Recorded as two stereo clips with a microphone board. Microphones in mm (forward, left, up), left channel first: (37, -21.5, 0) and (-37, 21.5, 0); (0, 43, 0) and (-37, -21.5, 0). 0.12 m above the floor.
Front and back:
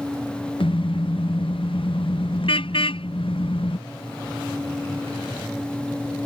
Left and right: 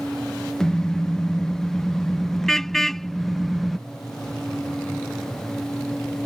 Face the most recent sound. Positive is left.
turn(degrees=-30)